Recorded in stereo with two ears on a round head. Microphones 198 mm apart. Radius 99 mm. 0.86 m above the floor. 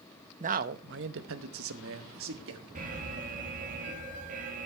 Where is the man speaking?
35° right (ahead or behind), 0.7 m; by 2.6 s 60° right (ahead or behind), 1.4 m.